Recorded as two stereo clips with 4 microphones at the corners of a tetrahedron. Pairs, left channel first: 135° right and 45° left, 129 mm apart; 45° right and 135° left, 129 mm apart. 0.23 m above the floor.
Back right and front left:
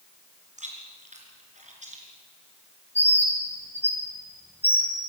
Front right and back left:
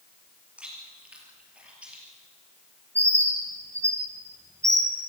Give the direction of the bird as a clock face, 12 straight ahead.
7 o'clock.